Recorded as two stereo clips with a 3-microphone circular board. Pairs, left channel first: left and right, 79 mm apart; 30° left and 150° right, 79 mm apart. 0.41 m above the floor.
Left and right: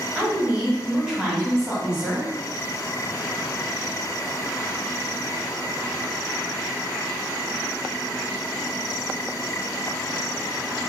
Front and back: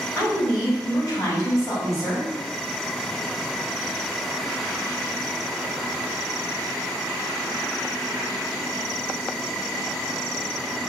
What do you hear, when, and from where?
0.1 s a woman speaking: 10° right, 1.9 m